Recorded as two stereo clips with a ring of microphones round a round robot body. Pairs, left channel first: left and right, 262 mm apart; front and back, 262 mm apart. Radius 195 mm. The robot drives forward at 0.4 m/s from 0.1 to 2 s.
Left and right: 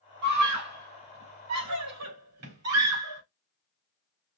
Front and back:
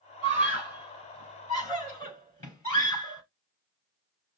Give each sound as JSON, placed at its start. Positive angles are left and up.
{"t": 0.2, "sound": "a scream", "azimuth_deg": -90, "distance_m": 3.0}